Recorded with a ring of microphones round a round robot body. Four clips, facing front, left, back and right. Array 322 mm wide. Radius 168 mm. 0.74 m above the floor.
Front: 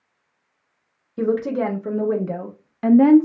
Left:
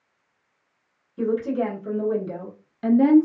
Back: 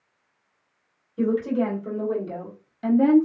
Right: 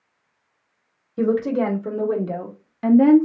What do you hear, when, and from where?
1.2 s a woman speaking: 45° right, 2.0 m; by 3.3 s straight ahead, 1.1 m